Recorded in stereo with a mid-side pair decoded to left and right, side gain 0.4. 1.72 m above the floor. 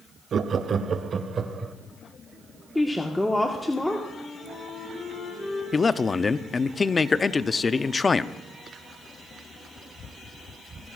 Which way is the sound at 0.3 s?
55° right.